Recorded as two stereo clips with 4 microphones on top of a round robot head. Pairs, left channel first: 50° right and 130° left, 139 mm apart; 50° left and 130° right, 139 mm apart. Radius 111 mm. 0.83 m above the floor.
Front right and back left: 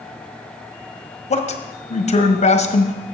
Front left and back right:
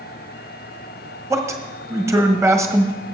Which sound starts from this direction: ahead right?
A man speaking, at 1.3 s.